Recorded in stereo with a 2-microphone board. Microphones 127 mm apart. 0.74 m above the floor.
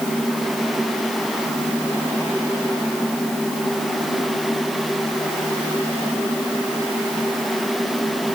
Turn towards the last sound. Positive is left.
No sound to turn to.